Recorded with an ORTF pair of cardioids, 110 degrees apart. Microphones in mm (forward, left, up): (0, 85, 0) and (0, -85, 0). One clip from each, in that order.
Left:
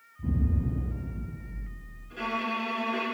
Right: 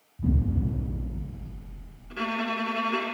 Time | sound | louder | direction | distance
0.2 | an explosion | right 3 dB | 45° right | 2.5 m
2.1 | a violin | right 1 dB | 45° right | 2.5 m